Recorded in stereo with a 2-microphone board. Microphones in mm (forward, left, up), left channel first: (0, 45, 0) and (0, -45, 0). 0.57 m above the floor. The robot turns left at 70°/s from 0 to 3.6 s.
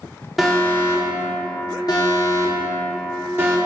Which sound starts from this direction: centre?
An alarm, at 0.4 s.